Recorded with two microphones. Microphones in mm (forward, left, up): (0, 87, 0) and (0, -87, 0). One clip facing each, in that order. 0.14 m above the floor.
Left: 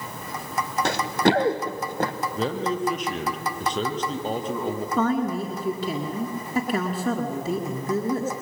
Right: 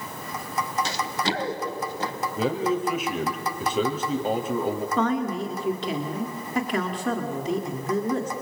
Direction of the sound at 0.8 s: 60° left (ahead or behind).